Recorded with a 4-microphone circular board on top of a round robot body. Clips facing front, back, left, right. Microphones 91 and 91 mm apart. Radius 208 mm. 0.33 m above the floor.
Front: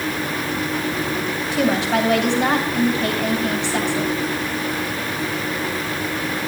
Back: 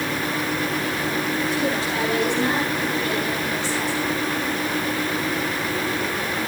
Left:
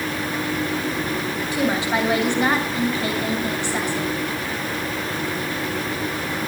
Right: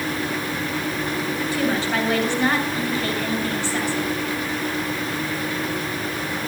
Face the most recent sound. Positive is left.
turn(degrees=20)